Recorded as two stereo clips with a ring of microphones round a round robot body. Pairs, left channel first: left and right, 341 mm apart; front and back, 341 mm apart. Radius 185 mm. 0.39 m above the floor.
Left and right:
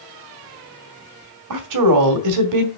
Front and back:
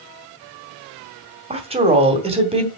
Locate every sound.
1.5 s a woman speaking: 110° right, 2 m